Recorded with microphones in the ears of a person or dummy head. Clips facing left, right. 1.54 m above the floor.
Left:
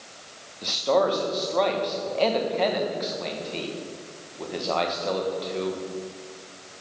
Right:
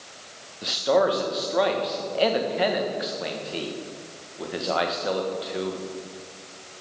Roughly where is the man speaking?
Centre.